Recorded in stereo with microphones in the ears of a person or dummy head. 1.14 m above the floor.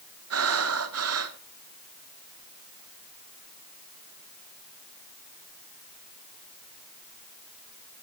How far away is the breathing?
About 0.9 m.